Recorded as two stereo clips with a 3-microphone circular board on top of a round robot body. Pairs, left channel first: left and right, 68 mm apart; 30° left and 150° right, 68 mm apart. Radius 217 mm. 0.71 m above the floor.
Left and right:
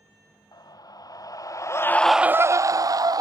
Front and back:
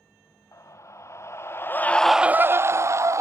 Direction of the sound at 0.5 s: 75° left.